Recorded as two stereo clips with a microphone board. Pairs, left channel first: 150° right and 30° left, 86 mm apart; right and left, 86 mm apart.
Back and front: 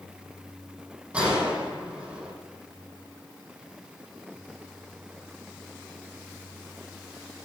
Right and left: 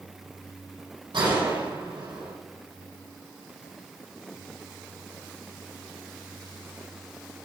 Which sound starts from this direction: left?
A gunshot, at 1.1 s.